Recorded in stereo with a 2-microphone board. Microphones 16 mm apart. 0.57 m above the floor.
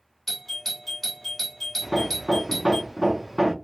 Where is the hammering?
20° right (ahead or behind), 0.5 m.